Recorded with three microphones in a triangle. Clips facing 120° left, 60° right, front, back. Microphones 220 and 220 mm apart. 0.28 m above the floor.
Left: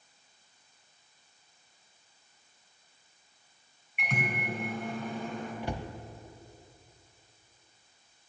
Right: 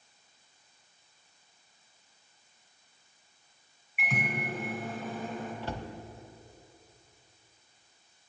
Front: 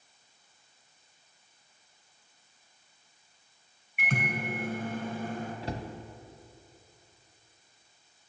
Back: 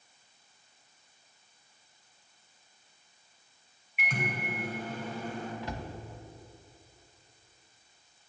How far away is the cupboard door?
About 0.6 m.